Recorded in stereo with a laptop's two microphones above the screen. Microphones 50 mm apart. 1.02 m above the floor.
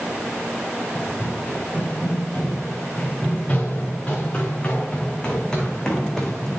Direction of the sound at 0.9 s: 35° left (ahead or behind).